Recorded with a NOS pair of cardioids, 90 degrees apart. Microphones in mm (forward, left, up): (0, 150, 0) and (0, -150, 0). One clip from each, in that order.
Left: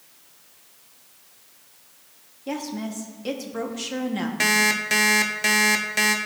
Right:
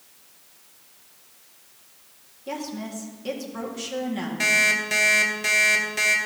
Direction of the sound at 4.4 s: 30° left.